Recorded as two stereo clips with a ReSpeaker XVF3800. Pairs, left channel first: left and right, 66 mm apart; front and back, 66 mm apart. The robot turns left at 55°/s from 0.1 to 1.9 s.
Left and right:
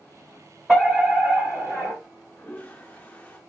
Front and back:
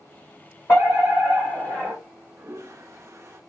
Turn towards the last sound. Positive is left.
turn(degrees=150)